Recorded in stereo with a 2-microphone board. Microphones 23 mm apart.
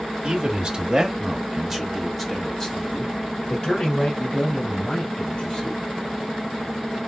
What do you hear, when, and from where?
0.2 s a man speaking: 45° right (ahead or behind), 1.7 m; by 5.8 s 40° left (ahead or behind), 3.5 m